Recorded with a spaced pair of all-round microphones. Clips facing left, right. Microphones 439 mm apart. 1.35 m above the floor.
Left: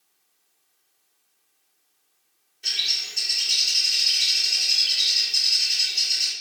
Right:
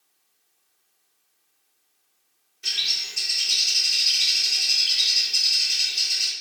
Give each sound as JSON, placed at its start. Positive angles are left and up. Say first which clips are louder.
{"t": 2.6, "sound": "a bird", "louder": "even", "side_deg": -20, "distance_m": 0.6}